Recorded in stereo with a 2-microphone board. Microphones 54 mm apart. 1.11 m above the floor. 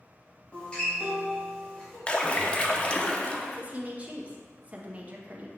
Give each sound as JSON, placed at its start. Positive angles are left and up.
{"t": 0.5, "sound": "a guitar", "side_deg": 15, "distance_m": 2.5}
{"t": 2.1, "sound": "a splash", "side_deg": 20, "distance_m": 0.6}
{"t": 3.4, "sound": "a woman speaking", "side_deg": -30, "distance_m": 0.9}